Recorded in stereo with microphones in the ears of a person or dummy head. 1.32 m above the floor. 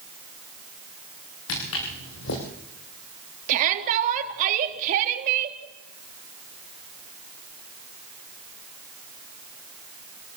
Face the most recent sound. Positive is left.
turn(degrees=-50)  # may be behind; listen again after turning